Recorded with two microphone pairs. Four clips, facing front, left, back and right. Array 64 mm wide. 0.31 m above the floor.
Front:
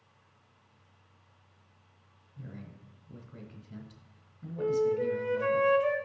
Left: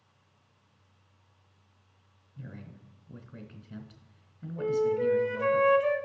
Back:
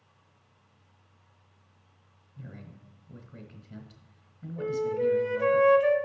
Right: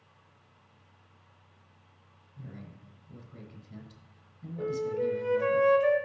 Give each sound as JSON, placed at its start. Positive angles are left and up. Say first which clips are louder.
{"t": 2.4, "sound": "a man speaking", "louder": "left 1 dB, even", "azimuth_deg": 125, "distance_m": 1.2}
{"t": 4.6, "sound": "a flute", "louder": "left 4 dB, even", "azimuth_deg": 175, "distance_m": 1.0}